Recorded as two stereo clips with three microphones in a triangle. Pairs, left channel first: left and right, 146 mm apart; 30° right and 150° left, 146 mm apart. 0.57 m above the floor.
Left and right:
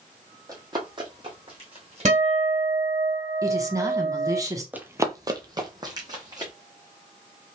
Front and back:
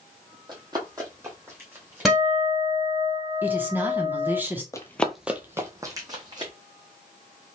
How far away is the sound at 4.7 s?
About 0.6 m.